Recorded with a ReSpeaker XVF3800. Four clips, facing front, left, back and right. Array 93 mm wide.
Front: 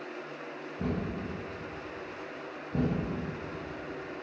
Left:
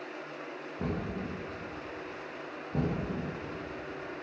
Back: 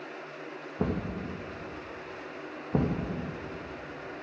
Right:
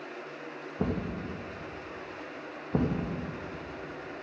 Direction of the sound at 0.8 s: 145° right.